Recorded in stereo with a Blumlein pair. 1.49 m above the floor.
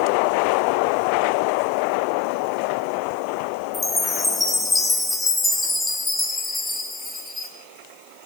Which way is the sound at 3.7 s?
10° left.